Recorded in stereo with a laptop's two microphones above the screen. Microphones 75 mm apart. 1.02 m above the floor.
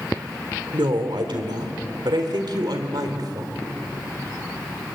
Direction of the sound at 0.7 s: 85° right.